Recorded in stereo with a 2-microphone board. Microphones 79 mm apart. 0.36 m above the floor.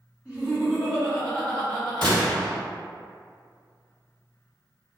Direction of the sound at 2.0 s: 60° right (ahead or behind).